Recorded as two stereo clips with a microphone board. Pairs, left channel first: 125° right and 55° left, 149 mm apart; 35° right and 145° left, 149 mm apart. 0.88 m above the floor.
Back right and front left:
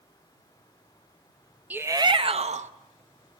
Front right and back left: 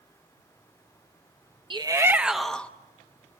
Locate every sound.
1.7 s a shout: 125° left, 0.7 m; by 2.7 s 45° left, 1.0 m